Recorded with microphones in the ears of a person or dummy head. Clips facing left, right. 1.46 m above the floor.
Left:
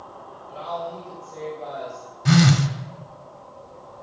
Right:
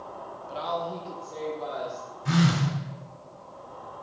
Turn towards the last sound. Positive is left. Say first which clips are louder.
# left 6 dB
turn(degrees=65)  # may be behind; listen again after turning